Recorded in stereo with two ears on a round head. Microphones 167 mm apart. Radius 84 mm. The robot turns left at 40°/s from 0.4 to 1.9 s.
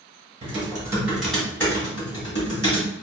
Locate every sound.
0.4 s typing on a keyboard: 145° right, 1.9 m; by 2.9 s 155° left, 1.9 m